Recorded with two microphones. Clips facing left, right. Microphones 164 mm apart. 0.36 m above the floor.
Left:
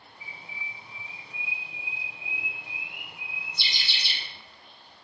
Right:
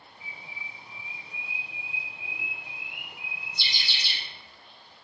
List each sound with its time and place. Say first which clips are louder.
0.2 s a bird: left 1 dB; 45° right (ahead or behind), 1.8 m